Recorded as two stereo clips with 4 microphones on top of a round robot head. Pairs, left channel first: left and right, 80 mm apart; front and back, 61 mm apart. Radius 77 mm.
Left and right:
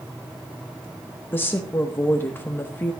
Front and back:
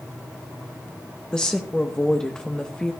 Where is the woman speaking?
60° left, 1.0 m.